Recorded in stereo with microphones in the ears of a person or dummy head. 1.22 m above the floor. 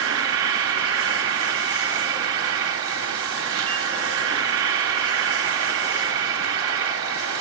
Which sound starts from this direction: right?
An insect, at 0.0 s.